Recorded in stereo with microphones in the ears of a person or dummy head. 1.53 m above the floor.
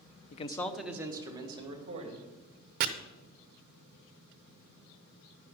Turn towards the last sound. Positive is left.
turn(degrees=-50)  # may be behind; listen again after turning